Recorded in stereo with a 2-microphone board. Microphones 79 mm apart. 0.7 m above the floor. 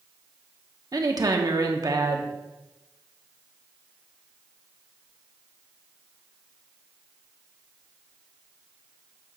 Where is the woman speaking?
55° right (ahead or behind), 1.0 m.